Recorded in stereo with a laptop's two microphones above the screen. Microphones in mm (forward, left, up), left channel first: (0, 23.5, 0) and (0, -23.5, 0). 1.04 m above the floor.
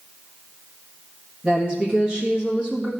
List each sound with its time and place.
1.4 s a woman speaking: 20° right (ahead or behind), 1.4 m